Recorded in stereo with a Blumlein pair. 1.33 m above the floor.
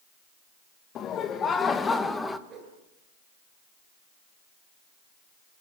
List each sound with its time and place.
0.9 s laughter: 30° left, 2.0 m; by 2.4 s 5° left, 1.8 m
2.5 s a whoosh: 30° right, 7.5 m